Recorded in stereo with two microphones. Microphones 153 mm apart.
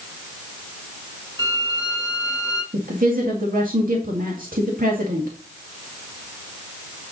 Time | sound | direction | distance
1.4 | a violin | 30° right (ahead or behind) | 2 m
2.7 | a woman speaking | 70° right (ahead or behind) | 2 m